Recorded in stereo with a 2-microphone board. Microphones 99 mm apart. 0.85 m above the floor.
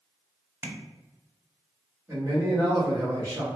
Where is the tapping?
25° right (ahead or behind), 0.7 m.